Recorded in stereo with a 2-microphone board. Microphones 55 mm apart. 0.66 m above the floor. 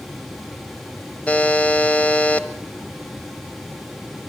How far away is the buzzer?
About 1.5 m.